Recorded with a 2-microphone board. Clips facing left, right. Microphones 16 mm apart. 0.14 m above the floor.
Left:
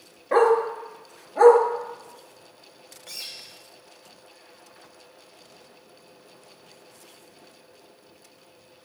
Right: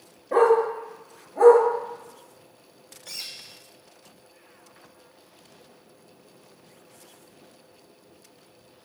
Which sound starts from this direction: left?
A dog barking, at 0.3 s.